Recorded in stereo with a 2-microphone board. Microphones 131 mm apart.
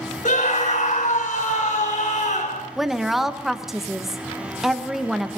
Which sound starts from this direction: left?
A scream, at 0.2 s.